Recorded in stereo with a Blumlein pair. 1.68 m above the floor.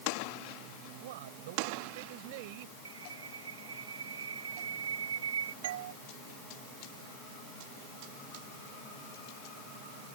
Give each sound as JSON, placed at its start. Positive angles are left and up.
{"t": 1.0, "sound": "a man speaking", "azimuth_deg": -55}
{"t": 2.9, "sound": "a bird", "azimuth_deg": -65}
{"t": 5.6, "sound": "a doorbell", "azimuth_deg": -60}